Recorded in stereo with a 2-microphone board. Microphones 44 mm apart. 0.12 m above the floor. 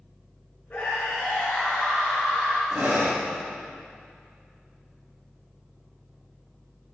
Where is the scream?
40° left (ahead or behind), 5 m; by 2.6 s 5° left (ahead or behind), 3 m.